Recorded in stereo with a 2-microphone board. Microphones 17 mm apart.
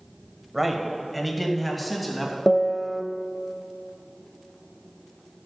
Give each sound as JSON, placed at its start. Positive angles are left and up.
{"t": 0.5, "sound": "a man speaking", "side_deg": -10, "distance_m": 1.4}
{"t": 2.5, "sound": "a piano", "side_deg": 10, "distance_m": 0.6}